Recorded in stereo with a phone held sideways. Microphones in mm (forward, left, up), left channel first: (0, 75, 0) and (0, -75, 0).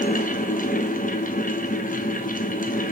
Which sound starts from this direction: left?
A fan, at 0.0 s.